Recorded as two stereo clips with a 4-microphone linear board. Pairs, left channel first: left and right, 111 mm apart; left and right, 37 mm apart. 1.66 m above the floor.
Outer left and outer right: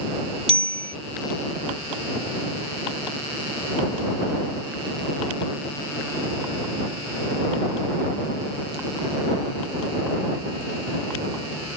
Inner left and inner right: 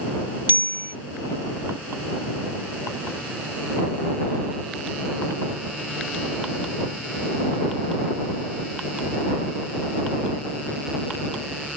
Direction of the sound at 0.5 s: 70° right (ahead or behind).